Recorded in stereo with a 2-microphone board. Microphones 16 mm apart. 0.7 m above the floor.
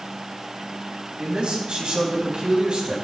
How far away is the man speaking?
About 4 m.